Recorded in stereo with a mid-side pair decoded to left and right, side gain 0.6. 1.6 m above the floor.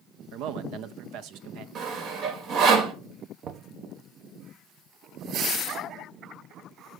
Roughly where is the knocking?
Ahead right.